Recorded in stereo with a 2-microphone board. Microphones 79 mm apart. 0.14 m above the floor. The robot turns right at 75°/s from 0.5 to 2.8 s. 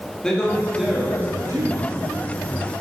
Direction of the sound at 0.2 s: 165° left.